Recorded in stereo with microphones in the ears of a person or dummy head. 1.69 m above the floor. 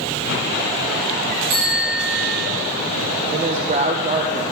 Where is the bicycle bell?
40° right (ahead or behind), 5 m.